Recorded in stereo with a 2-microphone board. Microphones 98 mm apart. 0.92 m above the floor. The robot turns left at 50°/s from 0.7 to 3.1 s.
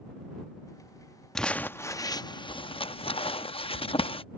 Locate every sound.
1.4 s crumpling: 5° left (ahead or behind); by 4.2 s 70° left (ahead or behind)